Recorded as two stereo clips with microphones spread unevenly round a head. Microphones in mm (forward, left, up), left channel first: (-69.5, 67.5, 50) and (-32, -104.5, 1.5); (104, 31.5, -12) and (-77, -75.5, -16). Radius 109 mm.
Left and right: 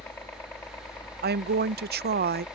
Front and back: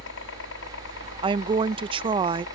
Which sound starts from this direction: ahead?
A helicopter, at 0.0 s.